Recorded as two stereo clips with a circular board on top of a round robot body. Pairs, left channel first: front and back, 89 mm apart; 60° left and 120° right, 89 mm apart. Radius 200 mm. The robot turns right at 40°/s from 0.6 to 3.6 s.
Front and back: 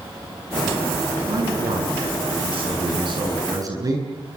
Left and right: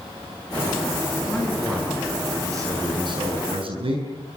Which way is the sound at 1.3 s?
135° left.